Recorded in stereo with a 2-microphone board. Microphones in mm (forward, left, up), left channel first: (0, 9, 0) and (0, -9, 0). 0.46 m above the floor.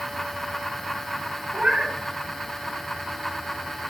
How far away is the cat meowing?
About 1.4 m.